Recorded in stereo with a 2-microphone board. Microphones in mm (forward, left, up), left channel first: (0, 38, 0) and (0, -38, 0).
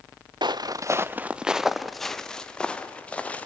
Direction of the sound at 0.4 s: 75° right (ahead or behind).